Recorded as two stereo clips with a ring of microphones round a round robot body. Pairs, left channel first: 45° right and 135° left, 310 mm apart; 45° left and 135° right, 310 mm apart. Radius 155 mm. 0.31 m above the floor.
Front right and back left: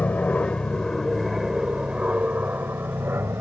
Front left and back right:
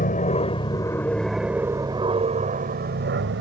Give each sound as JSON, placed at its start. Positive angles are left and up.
{"t": 0.0, "sound": "an aircraft", "azimuth_deg": 35}